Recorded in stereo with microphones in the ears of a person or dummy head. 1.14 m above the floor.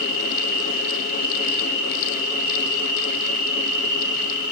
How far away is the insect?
About 4.5 m.